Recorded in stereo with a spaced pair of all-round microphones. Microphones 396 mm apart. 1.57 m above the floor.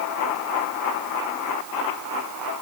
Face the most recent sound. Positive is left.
No sound to turn to.